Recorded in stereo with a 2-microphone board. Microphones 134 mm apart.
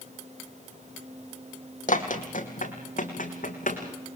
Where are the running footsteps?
70° left (ahead or behind), 2.5 m.